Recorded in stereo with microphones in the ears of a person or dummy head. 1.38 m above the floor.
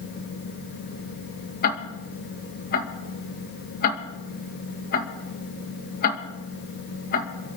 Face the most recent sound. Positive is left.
turn(degrees=50)  # may be behind; listen again after turning